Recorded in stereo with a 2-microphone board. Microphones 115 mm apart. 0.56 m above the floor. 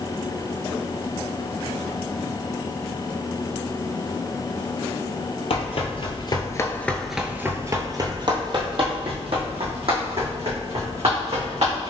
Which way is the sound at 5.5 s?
60° left (ahead or behind).